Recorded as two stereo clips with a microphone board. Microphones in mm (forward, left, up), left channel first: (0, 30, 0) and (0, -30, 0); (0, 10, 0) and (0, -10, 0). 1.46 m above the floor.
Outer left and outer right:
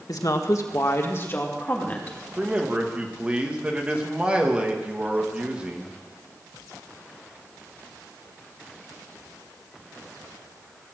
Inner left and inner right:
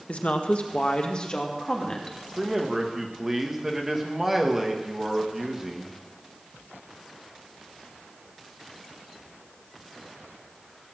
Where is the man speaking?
20° right (ahead or behind), 1.9 m.